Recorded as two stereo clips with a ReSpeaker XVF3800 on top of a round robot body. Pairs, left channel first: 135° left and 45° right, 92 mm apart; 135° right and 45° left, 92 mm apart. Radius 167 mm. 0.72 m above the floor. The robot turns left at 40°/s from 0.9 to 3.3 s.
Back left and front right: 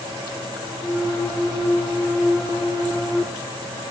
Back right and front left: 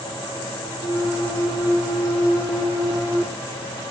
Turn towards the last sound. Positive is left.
No sound to turn to.